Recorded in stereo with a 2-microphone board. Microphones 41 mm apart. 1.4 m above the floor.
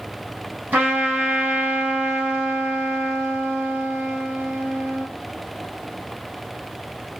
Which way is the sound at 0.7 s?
45° right (ahead or behind).